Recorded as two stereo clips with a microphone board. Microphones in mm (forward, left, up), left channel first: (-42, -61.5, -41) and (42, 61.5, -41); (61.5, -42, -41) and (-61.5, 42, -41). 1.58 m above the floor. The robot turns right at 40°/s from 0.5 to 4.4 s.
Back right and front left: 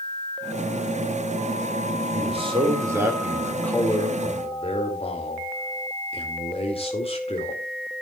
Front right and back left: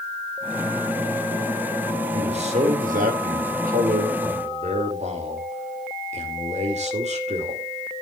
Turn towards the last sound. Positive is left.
turn(degrees=-175)